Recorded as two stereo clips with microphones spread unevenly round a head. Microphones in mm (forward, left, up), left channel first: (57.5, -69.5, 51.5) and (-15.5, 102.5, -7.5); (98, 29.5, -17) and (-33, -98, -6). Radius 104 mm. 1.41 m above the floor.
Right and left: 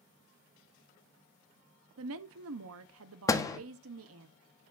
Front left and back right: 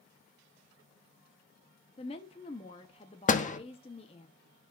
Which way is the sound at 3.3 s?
Straight ahead.